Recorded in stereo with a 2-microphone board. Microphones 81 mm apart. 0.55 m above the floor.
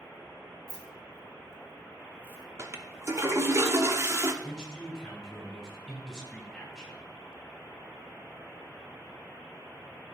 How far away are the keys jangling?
About 1.2 m.